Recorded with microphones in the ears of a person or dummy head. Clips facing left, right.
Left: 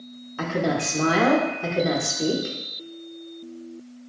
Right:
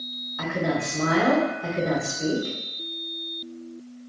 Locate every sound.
0.4 s a woman speaking: 45° left (ahead or behind), 0.5 m